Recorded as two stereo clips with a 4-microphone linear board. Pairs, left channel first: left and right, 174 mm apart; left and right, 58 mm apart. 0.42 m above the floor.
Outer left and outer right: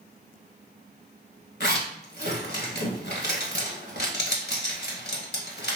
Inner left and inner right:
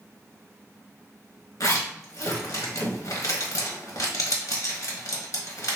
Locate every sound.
1.6 s a zipper: 75° left (ahead or behind), 0.9 m